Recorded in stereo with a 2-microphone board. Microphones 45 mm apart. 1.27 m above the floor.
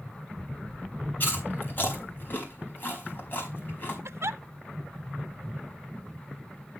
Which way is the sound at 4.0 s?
70° right (ahead or behind).